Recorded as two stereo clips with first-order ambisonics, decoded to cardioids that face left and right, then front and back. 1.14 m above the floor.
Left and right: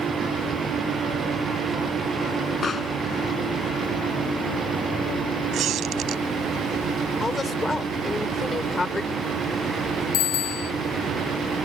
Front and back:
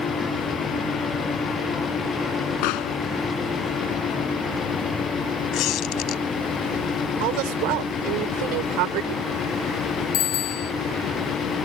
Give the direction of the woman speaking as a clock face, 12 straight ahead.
6 o'clock.